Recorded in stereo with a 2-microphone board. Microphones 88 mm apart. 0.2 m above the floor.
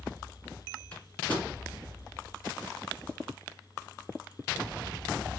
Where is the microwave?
15° left (ahead or behind), 1.7 m.